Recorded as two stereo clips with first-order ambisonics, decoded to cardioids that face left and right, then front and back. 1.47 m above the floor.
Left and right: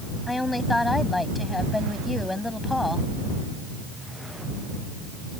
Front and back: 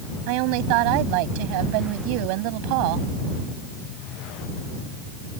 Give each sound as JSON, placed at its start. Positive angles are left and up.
{"t": 0.3, "sound": "a woman speaking", "azimuth_deg": 175}